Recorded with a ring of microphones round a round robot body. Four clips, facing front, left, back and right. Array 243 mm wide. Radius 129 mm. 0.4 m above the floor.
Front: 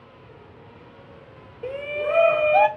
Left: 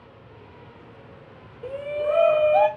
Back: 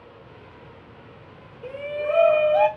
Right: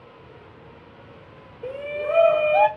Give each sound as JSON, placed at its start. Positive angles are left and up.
{"t": 1.6, "sound": "a shout", "azimuth_deg": -10, "distance_m": 0.9}